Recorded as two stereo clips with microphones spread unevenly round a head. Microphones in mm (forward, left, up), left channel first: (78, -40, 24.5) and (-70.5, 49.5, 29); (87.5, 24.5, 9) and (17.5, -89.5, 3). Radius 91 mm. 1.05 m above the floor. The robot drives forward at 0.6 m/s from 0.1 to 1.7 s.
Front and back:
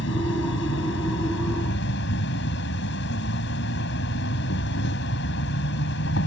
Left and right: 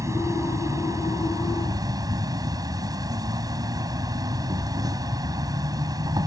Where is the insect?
55° right; by 6.3 s 60° right.